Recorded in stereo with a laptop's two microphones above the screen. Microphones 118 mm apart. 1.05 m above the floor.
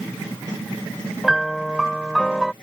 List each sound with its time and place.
1.2 s a piano: centre (ahead or behind)